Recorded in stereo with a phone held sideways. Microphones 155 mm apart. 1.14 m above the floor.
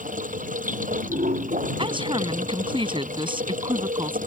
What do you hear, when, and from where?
0.0 s running water: 55° right (ahead or behind)
1.8 s a woman speaking: 35° right (ahead or behind)